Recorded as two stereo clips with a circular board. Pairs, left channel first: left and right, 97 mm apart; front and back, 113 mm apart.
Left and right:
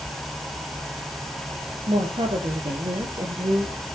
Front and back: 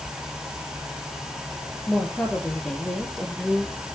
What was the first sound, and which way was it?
A woman speaking, 75° right.